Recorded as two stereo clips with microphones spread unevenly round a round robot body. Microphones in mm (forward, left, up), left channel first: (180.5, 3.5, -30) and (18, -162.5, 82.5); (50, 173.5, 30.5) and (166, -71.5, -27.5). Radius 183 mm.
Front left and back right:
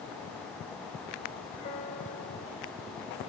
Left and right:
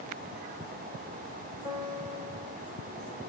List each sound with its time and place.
1.6 s a piano: 10° left, 3.5 m